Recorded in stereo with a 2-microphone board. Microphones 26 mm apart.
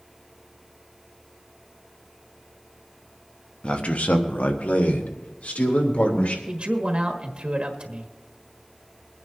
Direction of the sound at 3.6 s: 40° left (ahead or behind).